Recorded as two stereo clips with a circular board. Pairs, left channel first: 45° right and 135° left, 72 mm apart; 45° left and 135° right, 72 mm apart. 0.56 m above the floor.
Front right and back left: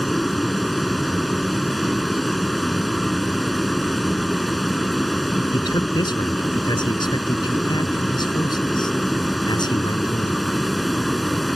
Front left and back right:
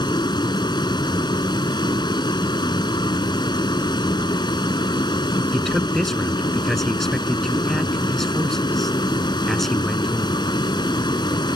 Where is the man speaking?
45° right.